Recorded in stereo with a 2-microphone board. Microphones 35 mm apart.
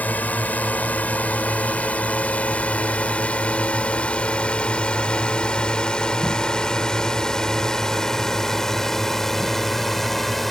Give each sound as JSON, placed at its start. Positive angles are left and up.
{"t": 0.0, "sound": "a drone", "side_deg": 55}